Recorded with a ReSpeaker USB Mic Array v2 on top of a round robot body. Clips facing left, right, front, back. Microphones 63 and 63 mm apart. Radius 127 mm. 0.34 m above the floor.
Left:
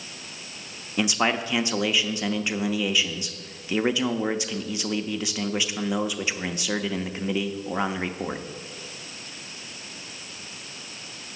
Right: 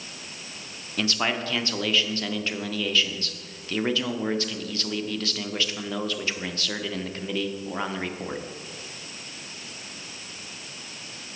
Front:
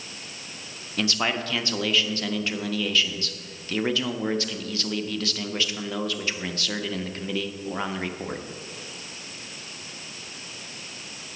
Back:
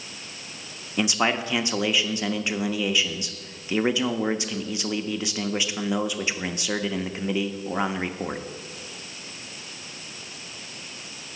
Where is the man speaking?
140° left, 0.9 m.